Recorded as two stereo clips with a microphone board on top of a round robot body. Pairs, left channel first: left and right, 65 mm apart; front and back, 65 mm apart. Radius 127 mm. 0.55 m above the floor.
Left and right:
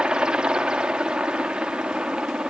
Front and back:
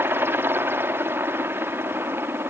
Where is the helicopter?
160° right.